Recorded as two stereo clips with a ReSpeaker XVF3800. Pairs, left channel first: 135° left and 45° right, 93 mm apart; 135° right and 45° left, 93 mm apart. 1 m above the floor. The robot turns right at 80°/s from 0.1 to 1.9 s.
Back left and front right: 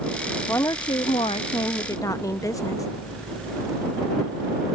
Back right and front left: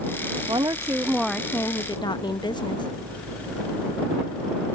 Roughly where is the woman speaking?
Left.